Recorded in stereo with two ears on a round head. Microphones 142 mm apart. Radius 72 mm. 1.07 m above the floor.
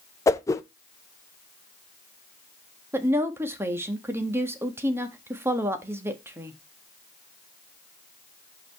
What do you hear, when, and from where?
0.3 s a whoosh: 20° left (ahead or behind), 0.7 m
2.9 s a woman speaking: 15° right (ahead or behind), 1.3 m